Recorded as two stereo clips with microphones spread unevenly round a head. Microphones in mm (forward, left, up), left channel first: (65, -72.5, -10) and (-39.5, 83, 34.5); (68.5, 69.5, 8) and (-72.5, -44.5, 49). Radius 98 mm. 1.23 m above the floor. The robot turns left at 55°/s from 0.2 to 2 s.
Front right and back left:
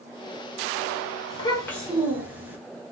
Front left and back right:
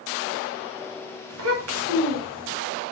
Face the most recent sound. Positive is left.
turn(degrees=-155)